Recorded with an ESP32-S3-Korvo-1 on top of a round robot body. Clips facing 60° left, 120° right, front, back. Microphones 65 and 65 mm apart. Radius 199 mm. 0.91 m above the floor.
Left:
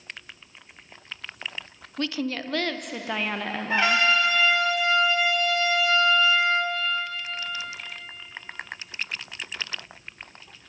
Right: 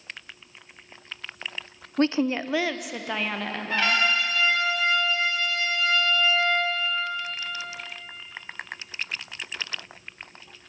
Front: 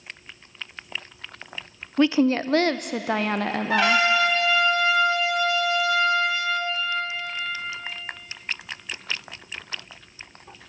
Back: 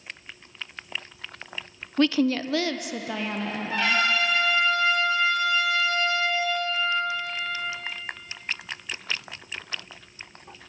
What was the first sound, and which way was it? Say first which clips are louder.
A woman speaking: right 6 dB, front 3 dB; 75° right.